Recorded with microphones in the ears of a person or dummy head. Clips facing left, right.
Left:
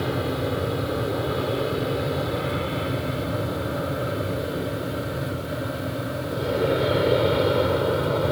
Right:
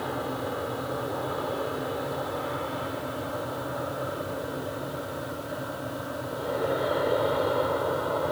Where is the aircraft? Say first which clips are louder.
Left 6 dB; 35° left (ahead or behind).